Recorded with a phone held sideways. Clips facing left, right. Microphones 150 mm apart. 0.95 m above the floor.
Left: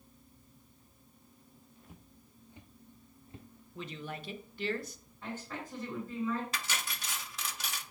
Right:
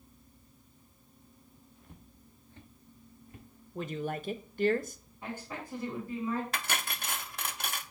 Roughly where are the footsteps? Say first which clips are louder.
Right 2 dB; centre.